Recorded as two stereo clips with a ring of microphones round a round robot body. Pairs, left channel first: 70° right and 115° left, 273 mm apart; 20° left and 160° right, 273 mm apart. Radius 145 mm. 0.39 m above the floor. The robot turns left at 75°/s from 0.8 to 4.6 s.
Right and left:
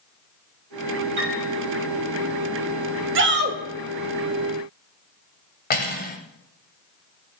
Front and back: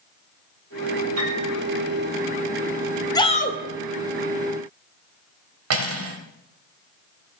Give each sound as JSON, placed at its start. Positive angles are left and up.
{"t": 1.2, "sound": "a piano", "azimuth_deg": 165, "distance_m": 3.0}
{"t": 3.1, "sound": "a shout", "azimuth_deg": 95, "distance_m": 1.1}
{"t": 5.7, "sound": "cutlery clinking", "azimuth_deg": -125, "distance_m": 1.4}